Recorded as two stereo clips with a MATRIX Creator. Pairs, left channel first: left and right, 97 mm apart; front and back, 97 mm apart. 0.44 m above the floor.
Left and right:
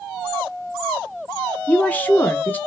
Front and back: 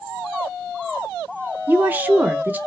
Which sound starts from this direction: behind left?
A woman speaking, at 1.7 s.